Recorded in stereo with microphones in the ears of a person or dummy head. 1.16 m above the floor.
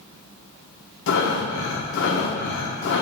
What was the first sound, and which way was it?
Breathing, 65° left (ahead or behind).